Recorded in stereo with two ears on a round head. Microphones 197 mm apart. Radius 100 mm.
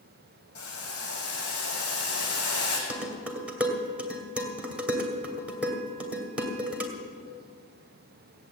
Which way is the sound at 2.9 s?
5° right (ahead or behind).